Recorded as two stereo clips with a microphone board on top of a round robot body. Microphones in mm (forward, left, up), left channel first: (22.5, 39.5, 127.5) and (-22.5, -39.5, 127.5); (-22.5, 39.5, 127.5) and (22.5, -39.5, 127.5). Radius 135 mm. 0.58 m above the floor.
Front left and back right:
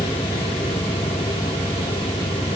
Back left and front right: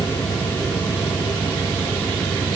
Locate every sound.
0.0 s an engine running: 135° left